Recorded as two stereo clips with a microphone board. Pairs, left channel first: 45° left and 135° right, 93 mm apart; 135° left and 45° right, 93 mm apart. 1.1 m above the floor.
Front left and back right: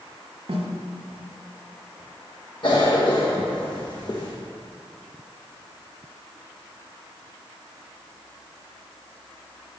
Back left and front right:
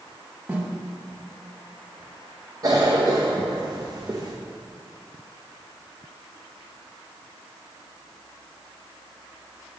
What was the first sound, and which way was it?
A snare drum, 115° right.